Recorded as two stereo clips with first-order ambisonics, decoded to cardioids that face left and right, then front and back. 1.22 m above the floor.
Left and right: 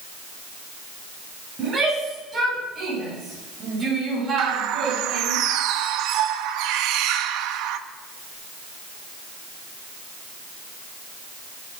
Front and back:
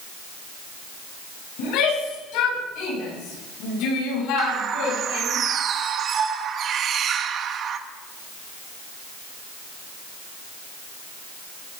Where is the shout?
20° right, 9.5 m; by 5.4 s 30° right, 6.5 m.